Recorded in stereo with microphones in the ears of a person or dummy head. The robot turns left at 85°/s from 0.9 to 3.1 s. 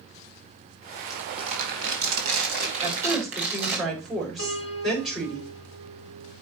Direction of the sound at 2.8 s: 25° right (ahead or behind).